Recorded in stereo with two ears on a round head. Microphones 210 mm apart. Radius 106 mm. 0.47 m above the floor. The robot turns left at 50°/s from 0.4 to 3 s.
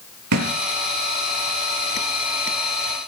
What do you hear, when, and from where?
0.3 s a thud: 80° right, 5.5 m; by 0.6 s 85° right, 5.5 m